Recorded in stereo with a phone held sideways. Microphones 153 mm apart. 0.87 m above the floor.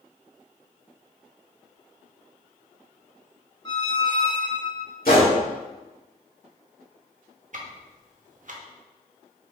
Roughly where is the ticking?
Right.